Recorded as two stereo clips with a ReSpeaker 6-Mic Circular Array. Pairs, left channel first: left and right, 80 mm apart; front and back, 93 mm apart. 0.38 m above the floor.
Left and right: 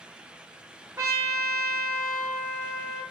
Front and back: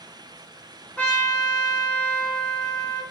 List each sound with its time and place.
1.0 s a trumpet: 65° right, 1.8 m